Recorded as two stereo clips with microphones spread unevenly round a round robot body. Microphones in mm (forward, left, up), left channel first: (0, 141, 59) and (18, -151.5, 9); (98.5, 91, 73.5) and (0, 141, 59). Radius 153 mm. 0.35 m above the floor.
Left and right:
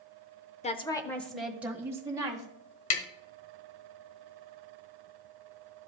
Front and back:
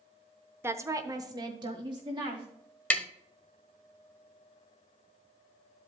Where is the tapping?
55° left, 1.2 m.